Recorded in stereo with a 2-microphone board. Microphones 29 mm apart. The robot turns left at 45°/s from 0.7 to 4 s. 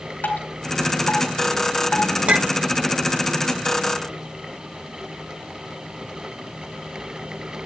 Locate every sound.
0.2 s dripping: 75° left (ahead or behind), 3 m; by 2.1 s 45° left (ahead or behind), 3 m
2.3 s a clink: 45° right (ahead or behind), 0.7 m; by 2.7 s 25° right (ahead or behind), 0.7 m